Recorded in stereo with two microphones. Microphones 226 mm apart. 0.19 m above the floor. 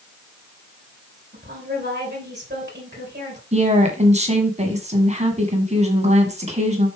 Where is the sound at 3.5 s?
30° right (ahead or behind), 1.8 m.